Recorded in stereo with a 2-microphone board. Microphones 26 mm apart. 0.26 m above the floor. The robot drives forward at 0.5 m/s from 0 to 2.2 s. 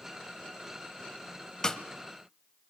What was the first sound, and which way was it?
A snare drum, 25° left (ahead or behind).